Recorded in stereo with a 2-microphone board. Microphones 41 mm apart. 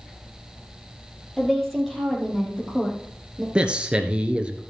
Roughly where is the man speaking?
Right.